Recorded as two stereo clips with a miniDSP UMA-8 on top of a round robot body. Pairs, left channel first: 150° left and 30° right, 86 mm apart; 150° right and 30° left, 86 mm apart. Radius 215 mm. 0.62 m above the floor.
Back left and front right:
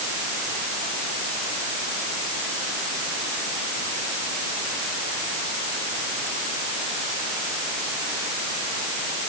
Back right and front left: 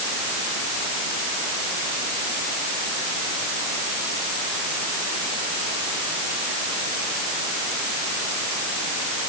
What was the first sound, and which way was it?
Only background noise.